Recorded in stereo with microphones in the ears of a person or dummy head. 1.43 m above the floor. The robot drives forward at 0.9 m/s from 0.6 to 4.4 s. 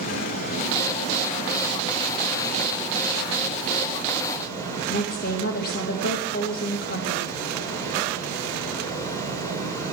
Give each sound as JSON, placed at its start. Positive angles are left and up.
{"t": 0.0, "sound": "running water", "side_deg": 55, "distance_m": 2.0}
{"t": 4.9, "sound": "a woman speaking", "side_deg": 50, "distance_m": 1.6}